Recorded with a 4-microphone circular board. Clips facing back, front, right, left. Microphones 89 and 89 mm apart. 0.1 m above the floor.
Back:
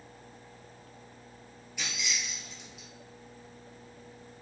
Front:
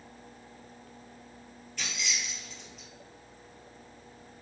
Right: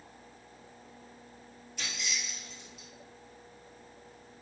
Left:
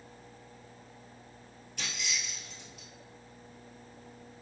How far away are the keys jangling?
About 1.2 m.